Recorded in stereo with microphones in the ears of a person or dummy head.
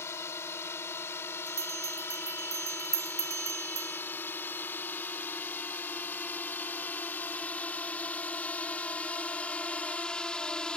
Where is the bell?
15° right (ahead or behind).